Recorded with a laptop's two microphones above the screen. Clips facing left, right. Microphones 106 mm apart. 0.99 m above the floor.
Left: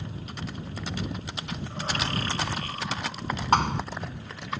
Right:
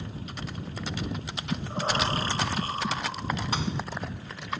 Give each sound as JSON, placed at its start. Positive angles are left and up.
{"t": 1.5, "sound": "breathing", "side_deg": -30}
{"t": 3.5, "sound": "a thud", "side_deg": 55}